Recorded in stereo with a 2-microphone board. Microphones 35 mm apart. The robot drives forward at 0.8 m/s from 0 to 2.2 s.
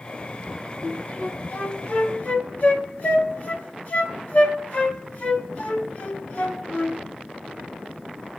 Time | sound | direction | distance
0.8 | a flute | 45° left (ahead or behind) | 1.3 m